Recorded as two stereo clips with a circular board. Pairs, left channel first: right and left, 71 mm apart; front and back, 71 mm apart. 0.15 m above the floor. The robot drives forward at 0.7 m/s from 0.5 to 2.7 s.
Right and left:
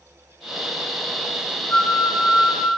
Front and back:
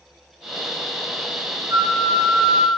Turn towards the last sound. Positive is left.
turn(degrees=-165)